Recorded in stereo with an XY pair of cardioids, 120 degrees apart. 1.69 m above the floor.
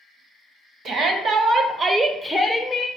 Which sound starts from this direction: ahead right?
A shout, at 0.8 s.